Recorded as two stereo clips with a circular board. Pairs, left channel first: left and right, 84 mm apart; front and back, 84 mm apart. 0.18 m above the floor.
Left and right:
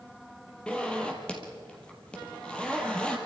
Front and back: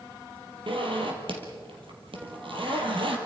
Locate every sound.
0.7 s a zipper: 165° left, 3 m